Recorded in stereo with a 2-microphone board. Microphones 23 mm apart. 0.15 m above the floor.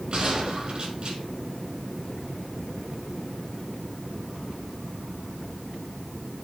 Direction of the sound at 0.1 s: 50° right (ahead or behind).